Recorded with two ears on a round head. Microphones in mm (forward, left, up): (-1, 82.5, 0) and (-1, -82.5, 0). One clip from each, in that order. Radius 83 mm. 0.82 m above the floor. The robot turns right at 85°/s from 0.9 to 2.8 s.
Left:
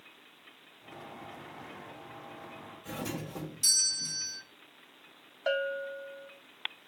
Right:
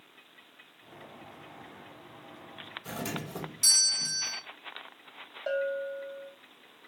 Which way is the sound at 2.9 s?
30° right (ahead or behind).